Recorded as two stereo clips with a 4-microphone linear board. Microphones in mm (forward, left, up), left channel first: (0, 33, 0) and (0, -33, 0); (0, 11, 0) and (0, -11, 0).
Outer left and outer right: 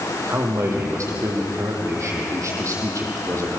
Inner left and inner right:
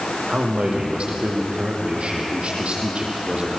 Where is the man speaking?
55° right (ahead or behind), 5 m.